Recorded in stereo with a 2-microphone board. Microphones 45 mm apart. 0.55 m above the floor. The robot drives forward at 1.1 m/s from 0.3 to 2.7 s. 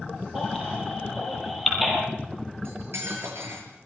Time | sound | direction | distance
0.3 | a baby crying | 5° left (ahead or behind) | 10 m
2.6 | cutlery clinking | 80° right | 6.5 m